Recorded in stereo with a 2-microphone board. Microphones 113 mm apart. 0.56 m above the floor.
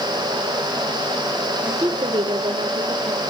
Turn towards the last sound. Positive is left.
turn(degrees=-75)  # may be behind; listen again after turning